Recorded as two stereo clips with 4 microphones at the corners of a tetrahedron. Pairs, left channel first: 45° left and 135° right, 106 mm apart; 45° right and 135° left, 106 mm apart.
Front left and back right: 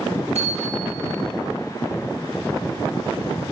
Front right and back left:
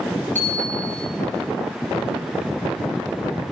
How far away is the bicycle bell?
About 9 m.